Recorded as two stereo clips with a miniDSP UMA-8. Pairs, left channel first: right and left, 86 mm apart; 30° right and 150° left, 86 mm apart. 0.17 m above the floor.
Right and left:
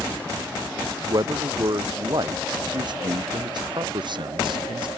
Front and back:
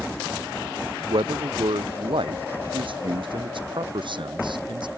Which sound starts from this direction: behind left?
A man speaking, at 1.1 s.